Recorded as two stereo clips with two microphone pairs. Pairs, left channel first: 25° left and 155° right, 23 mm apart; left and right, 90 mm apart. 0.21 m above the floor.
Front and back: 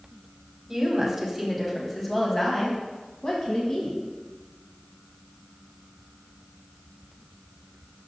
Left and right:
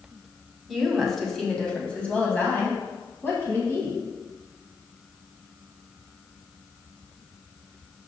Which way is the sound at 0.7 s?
Straight behind.